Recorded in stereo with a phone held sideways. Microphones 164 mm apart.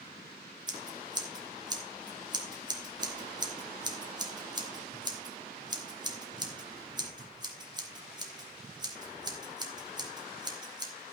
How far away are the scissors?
About 2.5 m.